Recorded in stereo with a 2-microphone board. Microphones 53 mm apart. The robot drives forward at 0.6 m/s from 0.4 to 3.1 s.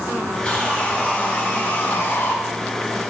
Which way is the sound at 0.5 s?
25° left (ahead or behind).